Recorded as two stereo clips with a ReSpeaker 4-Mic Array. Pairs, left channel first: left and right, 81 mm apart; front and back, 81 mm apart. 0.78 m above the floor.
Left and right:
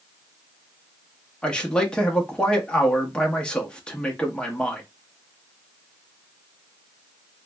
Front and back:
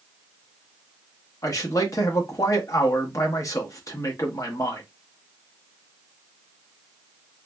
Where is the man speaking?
15° left, 0.9 m.